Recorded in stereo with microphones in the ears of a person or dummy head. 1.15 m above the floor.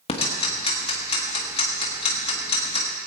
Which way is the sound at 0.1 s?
35° left (ahead or behind).